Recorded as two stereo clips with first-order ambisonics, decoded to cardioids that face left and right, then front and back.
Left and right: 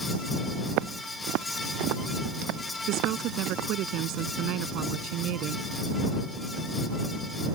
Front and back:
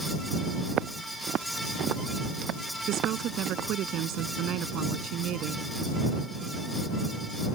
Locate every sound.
0.7 s footsteps: 125° right
2.9 s a woman speaking: 130° right